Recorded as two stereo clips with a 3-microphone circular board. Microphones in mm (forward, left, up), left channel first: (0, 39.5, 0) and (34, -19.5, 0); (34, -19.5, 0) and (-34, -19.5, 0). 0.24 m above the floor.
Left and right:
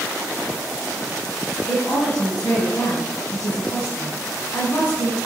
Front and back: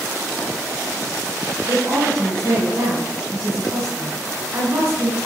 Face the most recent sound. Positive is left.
turn(degrees=155)